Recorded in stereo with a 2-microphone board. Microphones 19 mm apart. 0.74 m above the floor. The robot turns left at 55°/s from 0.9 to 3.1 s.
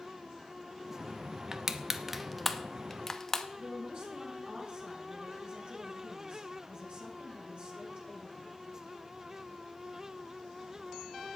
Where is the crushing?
25° right (ahead or behind), 0.9 m; by 3.5 s 20° left (ahead or behind), 0.9 m.